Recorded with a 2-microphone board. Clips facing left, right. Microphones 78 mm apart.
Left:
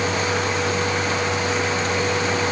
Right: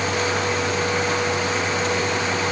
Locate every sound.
Only background noise.